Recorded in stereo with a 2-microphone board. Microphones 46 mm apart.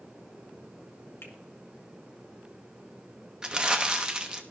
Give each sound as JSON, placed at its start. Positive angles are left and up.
{"t": 1.2, "sound": "a finger snap", "side_deg": 55, "distance_m": 1.4}
{"t": 3.4, "sound": "crumpling", "side_deg": -15, "distance_m": 0.7}